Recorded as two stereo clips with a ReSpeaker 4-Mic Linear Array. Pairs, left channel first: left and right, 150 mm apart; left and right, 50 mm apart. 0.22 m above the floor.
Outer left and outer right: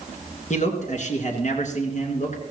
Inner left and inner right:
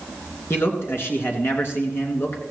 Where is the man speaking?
55° left (ahead or behind), 3 m.